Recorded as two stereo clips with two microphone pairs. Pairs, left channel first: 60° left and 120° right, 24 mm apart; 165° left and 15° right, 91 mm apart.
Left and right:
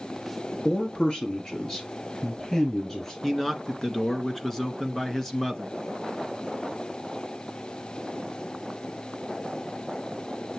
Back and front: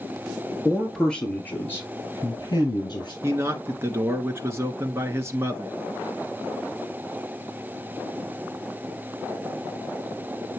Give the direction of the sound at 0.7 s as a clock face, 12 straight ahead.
10 o'clock.